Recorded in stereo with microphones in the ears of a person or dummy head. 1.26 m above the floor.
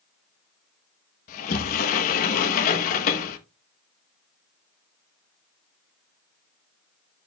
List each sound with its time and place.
1.3 s a sliding door: 45° left (ahead or behind), 1.0 m